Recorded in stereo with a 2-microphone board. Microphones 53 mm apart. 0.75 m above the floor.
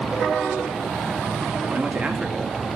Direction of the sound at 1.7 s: 30° right (ahead or behind).